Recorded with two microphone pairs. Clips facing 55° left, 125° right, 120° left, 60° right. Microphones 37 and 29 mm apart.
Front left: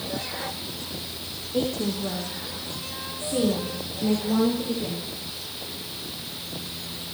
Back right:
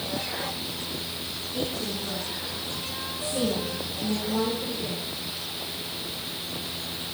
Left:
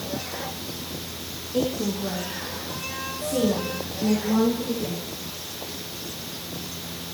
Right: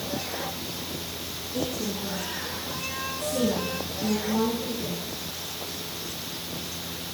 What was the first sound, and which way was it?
A woman speaking, 70° left.